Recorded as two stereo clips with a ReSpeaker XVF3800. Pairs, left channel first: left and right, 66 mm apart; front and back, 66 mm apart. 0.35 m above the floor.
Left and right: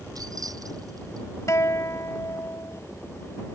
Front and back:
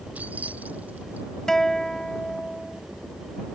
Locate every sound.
0.1 s keys jangling: 115° right
1.5 s a guitar: 80° left